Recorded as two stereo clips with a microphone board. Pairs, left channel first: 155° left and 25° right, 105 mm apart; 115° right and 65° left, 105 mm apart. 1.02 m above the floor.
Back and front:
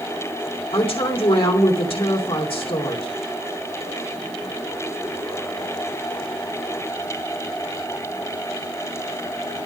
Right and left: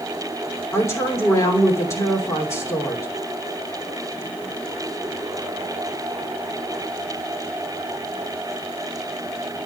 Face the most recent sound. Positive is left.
turn(degrees=-175)